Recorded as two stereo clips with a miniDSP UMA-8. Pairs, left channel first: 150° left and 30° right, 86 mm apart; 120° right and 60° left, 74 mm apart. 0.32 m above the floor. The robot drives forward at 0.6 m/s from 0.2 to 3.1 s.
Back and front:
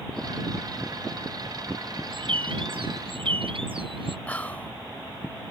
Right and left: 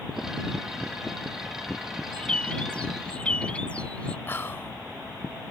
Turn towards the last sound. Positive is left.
turn(degrees=-150)